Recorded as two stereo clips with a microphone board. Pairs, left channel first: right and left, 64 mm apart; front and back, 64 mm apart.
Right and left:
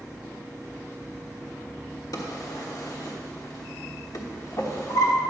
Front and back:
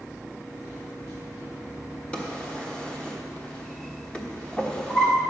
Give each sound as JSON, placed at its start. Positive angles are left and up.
{"t": 2.1, "sound": "a drawer", "azimuth_deg": -70, "distance_m": 1.2}